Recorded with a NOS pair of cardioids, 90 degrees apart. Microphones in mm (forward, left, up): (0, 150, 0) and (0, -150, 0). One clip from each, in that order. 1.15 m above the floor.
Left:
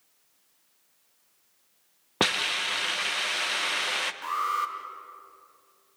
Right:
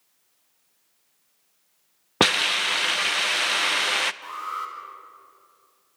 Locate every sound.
2.2 s a hiss: 25° right, 0.6 m
4.2 s an alarm: 35° left, 2 m